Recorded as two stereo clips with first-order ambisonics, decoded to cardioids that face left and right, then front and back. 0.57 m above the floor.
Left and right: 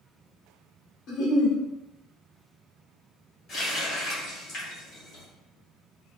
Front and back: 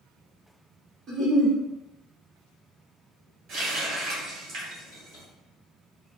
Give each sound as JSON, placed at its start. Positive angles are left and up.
{"t": 1.1, "sound": "a giggle", "azimuth_deg": 125, "distance_m": 1.3}
{"t": 3.5, "sound": "a running tap", "azimuth_deg": 140, "distance_m": 1.8}